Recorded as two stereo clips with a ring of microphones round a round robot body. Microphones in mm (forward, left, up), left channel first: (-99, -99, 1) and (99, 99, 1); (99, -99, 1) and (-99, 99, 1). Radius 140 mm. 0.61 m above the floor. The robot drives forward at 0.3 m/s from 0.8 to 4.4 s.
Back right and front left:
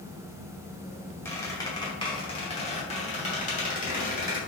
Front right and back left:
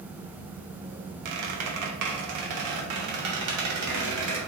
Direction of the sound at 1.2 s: 145° left.